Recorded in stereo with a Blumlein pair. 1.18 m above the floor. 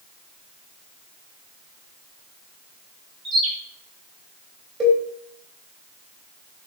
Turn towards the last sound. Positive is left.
turn(degrees=-20)